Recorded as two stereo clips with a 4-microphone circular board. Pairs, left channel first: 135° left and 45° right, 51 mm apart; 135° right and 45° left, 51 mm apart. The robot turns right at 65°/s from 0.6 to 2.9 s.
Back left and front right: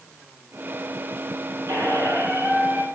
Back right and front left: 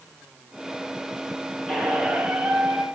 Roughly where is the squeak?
Ahead right.